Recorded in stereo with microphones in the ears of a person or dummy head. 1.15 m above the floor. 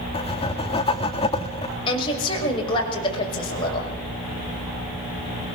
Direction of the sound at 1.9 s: 25° left (ahead or behind).